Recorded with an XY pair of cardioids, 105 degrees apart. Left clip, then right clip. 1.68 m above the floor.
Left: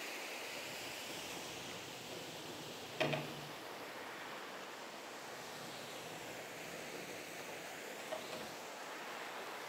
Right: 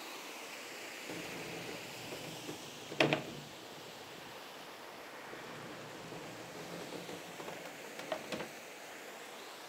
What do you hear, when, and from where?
1.1 s a sliding door: 70° right, 1.1 m